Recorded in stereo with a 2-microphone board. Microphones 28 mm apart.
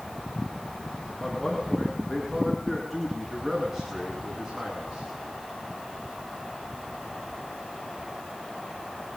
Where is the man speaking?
15° left (ahead or behind), 9.5 m; by 5.1 s 20° right (ahead or behind), 8 m.